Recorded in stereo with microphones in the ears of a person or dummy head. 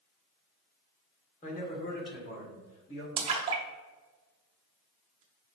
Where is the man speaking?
45° left (ahead or behind), 1.3 m; by 3.1 s 75° left (ahead or behind), 1.8 m.